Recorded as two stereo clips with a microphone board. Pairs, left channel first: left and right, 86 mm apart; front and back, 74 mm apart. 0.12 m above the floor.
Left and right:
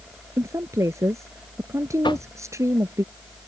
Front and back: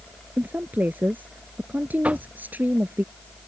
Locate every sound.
0.4 s a woman speaking: 125° right
2.0 s knocking: 110° left